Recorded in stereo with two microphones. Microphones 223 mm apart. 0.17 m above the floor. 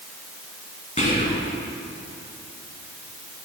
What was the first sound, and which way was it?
Whispering, 35° left (ahead or behind).